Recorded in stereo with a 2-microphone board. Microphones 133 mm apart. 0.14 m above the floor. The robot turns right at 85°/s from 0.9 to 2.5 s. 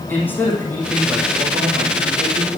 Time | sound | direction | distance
0.1 | a man speaking | 165° left | 6 m